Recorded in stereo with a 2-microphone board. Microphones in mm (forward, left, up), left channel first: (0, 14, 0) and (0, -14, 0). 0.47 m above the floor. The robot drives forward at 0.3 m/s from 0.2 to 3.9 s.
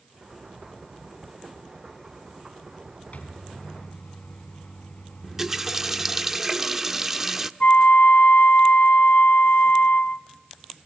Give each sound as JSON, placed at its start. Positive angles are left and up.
{"t": 3.1, "sound": "a microwave", "side_deg": 55, "distance_m": 4.0}
{"t": 5.2, "sound": "a running tap", "side_deg": -15, "distance_m": 0.7}
{"t": 7.6, "sound": "a flute", "side_deg": 70, "distance_m": 0.8}